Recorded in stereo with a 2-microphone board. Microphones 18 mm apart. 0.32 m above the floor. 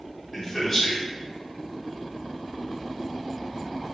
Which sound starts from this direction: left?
A man speaking, at 0.3 s.